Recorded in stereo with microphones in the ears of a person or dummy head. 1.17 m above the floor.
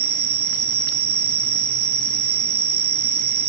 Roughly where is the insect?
Right.